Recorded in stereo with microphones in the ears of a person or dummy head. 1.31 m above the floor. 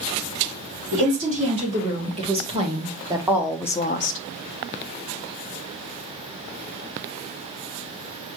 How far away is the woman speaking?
About 3.5 m.